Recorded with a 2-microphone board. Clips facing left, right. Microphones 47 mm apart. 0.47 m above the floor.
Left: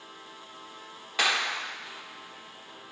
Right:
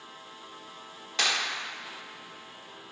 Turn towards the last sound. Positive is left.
turn(degrees=15)  # may be behind; listen again after turning